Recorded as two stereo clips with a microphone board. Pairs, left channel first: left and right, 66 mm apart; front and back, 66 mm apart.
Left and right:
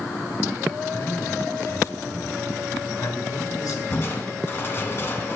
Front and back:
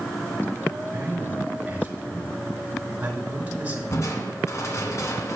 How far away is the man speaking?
About 5 m.